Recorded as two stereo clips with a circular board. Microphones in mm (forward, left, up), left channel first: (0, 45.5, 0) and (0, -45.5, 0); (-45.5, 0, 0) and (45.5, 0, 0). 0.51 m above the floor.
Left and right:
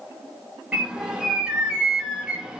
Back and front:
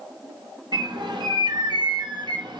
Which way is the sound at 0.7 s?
10° right.